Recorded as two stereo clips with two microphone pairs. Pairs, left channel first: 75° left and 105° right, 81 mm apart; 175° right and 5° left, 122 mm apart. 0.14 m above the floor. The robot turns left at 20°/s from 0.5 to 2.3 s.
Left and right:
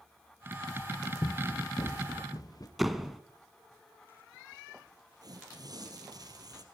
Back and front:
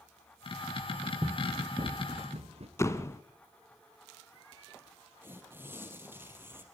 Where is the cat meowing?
No cat meowing in this recording.